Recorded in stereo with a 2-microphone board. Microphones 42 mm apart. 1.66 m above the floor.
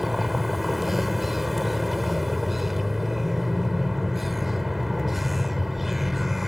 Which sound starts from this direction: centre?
A vehicle, at 0.0 s.